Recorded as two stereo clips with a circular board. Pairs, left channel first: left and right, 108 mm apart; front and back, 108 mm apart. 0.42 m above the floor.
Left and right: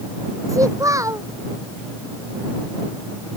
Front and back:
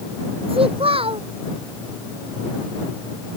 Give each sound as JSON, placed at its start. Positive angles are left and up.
{"t": 0.5, "sound": "a child speaking", "azimuth_deg": -150}